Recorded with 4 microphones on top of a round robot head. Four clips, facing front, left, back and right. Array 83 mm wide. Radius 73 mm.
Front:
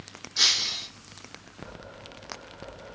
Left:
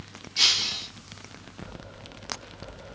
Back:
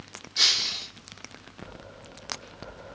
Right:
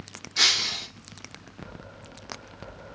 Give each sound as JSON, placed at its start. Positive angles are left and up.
{"t": 0.4, "sound": "breaking glass", "azimuth_deg": -80, "distance_m": 2.5}